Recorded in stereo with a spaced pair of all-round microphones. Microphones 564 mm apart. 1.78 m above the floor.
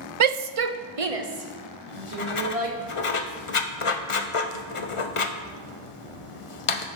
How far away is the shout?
About 0.5 m.